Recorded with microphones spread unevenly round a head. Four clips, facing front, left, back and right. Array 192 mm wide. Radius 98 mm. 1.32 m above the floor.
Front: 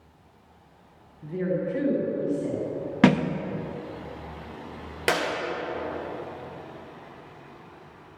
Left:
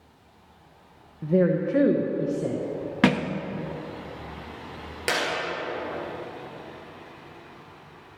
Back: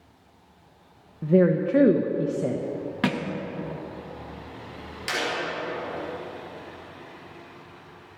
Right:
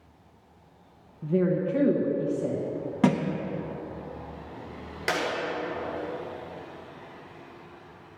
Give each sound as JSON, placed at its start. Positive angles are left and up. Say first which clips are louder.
{"t": 1.2, "sound": "a woman speaking", "louder": "left 3 dB, back 8 dB", "azimuth_deg": 160, "distance_m": 1.1}
{"t": 3.0, "sound": "a thud", "louder": "left 1 dB, front 8 dB", "azimuth_deg": 45, "distance_m": 0.7}
{"t": 5.1, "sound": "a clap", "louder": "left 1 dB, front 5 dB", "azimuth_deg": 15, "distance_m": 3.5}